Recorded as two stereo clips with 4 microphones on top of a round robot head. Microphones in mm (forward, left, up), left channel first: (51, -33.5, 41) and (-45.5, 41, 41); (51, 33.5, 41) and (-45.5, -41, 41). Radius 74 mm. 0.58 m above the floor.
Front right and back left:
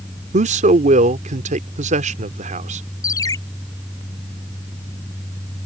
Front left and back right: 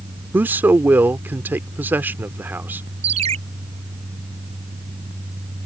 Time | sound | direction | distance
0.3 | a man speaking | 145° left | ?
3.0 | a ringtone | 105° right | ?